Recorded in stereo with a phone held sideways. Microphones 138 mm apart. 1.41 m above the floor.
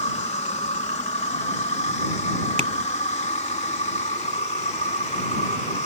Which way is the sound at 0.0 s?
60° left (ahead or behind).